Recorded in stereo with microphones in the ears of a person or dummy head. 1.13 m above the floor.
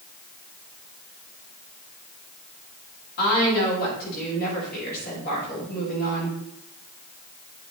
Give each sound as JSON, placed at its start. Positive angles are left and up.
{"t": 3.2, "sound": "a woman speaking", "side_deg": 45, "distance_m": 6.0}